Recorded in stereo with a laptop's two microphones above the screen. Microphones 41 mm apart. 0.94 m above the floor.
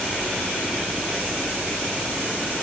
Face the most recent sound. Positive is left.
No sound to turn to.